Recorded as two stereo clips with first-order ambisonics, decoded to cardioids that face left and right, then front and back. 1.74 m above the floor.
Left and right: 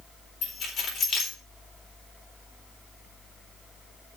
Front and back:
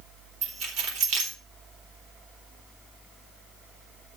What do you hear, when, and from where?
0.4 s keys jangling: 150° left, 3.5 m